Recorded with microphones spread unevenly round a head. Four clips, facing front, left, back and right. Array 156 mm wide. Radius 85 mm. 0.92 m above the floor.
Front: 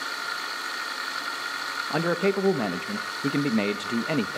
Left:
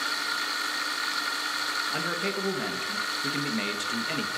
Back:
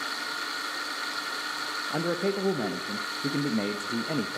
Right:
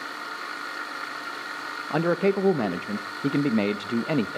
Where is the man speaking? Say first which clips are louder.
Right 13 dB, front 4 dB; 40° right, 1.3 m.